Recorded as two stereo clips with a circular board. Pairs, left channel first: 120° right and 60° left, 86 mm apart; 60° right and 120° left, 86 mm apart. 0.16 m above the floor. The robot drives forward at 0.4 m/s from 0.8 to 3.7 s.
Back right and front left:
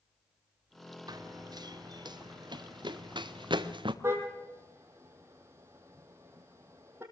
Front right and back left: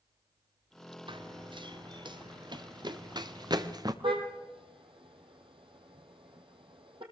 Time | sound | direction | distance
1.1 | running footsteps | 100° left | 1.8 m
4.0 | a car horn | 120° left | 3 m